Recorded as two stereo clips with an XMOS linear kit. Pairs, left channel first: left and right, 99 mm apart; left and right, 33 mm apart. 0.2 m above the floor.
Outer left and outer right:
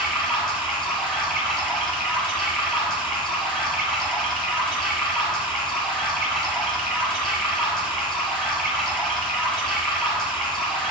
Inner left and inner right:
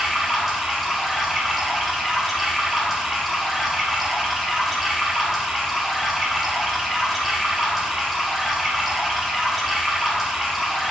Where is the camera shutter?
No camera shutter in this recording.